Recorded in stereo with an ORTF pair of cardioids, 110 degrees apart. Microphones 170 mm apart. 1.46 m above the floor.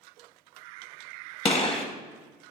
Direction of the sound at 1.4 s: 35° left.